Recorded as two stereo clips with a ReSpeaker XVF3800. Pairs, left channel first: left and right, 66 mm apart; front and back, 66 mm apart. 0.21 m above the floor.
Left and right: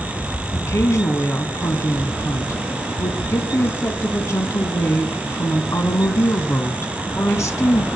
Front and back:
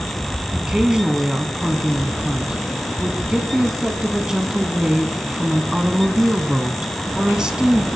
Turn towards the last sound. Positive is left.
turn(degrees=105)